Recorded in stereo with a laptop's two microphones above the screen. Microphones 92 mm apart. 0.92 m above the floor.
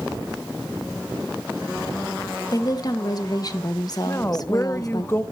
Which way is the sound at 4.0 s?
25° left (ahead or behind).